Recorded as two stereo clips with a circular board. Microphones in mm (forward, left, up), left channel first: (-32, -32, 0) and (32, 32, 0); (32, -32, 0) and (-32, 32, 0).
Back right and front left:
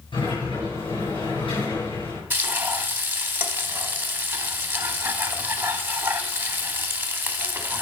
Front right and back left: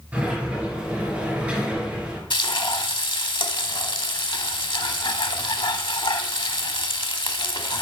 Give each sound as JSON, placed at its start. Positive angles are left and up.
{"t": 0.1, "sound": "a sliding door", "azimuth_deg": -150, "distance_m": 6.5}
{"t": 2.3, "sound": "frying", "azimuth_deg": -20, "distance_m": 1.1}